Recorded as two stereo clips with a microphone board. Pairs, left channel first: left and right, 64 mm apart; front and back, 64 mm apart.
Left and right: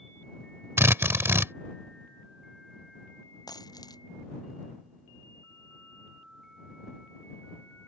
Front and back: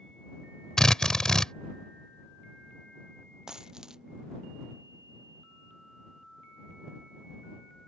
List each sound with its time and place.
0.8 s a drill: 75° right
3.5 s a dropped coin: 100° left